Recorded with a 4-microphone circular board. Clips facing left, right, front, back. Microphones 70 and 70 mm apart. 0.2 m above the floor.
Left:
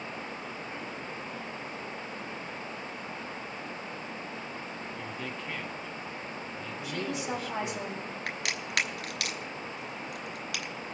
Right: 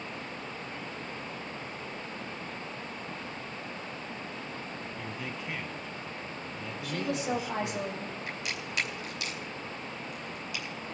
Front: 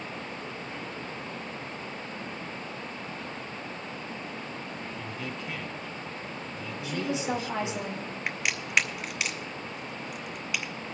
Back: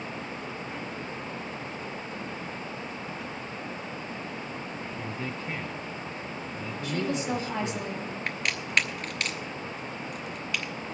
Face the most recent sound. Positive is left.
turn(degrees=80)